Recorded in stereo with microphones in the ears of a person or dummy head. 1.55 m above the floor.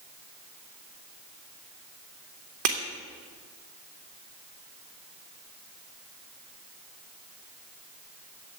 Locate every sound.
2.6 s breaking glass: 50° right (ahead or behind), 2 m